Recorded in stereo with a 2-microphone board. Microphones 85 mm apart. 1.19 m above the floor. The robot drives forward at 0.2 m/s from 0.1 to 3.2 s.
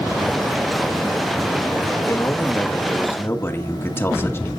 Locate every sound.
2.1 s a man speaking: 30° left (ahead or behind), 1.5 m; by 4.5 s 25° left (ahead or behind), 1.7 m